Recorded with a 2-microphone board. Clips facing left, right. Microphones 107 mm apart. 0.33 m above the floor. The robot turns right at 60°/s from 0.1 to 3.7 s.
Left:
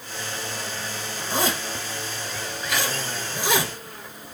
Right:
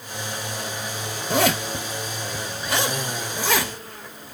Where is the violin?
I don't hear a violin.